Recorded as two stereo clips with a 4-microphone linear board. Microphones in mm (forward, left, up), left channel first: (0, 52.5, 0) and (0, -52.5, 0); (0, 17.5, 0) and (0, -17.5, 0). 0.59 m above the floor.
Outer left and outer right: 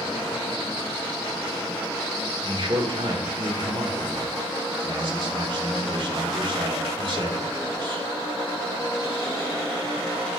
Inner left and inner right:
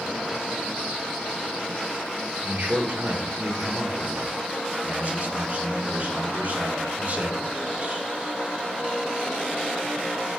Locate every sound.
2.4 s a man speaking: 50° right (ahead or behind), 1.6 m